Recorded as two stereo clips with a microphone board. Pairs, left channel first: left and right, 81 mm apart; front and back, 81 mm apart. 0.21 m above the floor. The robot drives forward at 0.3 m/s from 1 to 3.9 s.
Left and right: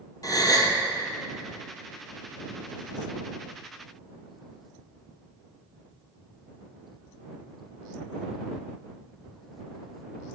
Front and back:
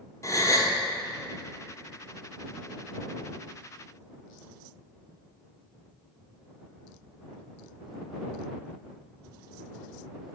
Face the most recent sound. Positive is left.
turn(degrees=120)